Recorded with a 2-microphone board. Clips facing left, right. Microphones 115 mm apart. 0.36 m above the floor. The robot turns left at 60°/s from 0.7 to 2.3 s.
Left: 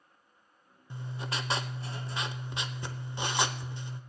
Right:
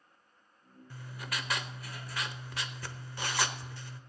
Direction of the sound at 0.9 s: 20° left (ahead or behind).